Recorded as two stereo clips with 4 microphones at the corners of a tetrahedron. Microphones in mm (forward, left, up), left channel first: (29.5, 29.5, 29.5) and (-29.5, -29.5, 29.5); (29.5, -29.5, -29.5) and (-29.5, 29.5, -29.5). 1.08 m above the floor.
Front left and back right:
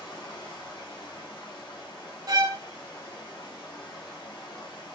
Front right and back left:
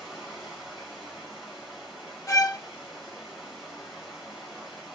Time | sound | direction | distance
0.0 | running water | 50° left | 2 m
2.3 | a violin | 100° right | 0.7 m